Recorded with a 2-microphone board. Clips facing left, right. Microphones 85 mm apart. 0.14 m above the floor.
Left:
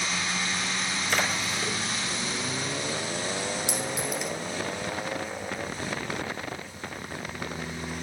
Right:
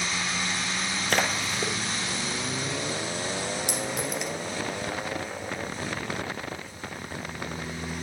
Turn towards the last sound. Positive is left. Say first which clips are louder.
# even
turn(degrees=-65)  # may be behind; listen again after turning